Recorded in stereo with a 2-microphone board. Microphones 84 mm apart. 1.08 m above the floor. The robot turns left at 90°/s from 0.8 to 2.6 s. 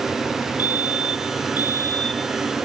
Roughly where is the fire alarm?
Behind left.